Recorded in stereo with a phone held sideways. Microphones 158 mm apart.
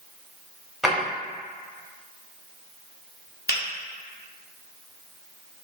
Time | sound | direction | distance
0.8 | a drawer | centre (ahead or behind) | 0.9 m
3.5 | a finger snap | 70° left (ahead or behind) | 1.0 m